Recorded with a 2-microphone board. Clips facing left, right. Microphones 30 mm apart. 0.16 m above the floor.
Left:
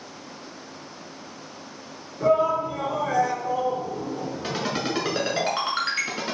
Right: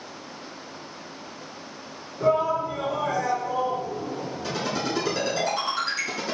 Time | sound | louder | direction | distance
2.2 | a shout | left 2 dB | 10° right (ahead or behind) | 1.9 m
4.4 | a ringtone | even | 40° left (ahead or behind) | 1.3 m